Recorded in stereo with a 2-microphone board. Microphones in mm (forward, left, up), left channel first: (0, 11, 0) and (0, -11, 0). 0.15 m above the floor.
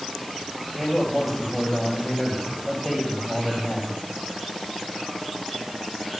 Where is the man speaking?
15° right (ahead or behind), 3.5 m.